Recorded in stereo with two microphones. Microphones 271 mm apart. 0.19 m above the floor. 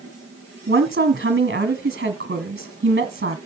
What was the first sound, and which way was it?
A woman speaking, 40° right (ahead or behind).